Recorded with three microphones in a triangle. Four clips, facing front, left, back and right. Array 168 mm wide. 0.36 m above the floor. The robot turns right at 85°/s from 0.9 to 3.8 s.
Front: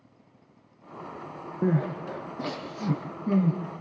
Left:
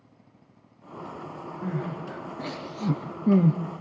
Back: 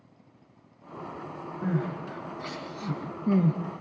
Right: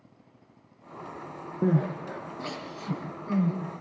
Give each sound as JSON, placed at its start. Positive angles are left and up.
{"t": 1.6, "sound": "crying", "azimuth_deg": -50, "distance_m": 3.5}